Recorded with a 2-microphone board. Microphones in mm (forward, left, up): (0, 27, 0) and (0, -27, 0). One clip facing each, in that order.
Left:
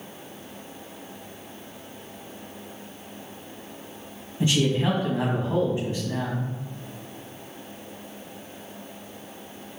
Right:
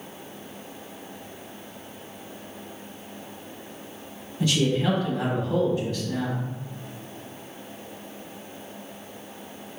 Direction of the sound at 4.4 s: 25° left (ahead or behind).